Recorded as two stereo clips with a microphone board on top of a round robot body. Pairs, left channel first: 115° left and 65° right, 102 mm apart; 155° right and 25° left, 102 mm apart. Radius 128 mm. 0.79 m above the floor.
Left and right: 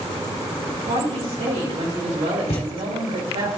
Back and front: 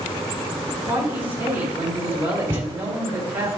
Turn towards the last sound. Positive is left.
turn(degrees=85)